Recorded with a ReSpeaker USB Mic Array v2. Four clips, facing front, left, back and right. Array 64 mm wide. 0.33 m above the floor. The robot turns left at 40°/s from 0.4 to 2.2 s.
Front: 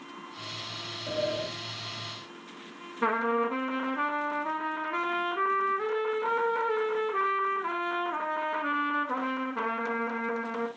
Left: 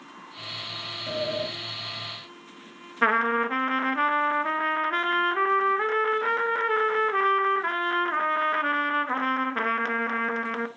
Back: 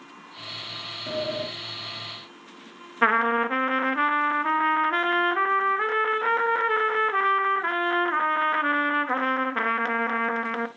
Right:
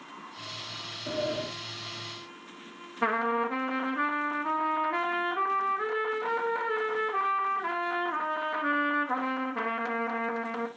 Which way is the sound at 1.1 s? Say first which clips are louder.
Left 2 dB, back 1 dB; 150° right.